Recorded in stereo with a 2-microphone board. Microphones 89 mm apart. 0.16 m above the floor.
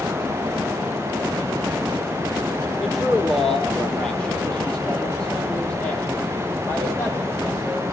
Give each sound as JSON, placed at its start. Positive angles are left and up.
{"t": 2.8, "sound": "a man speaking", "side_deg": 0, "distance_m": 4.5}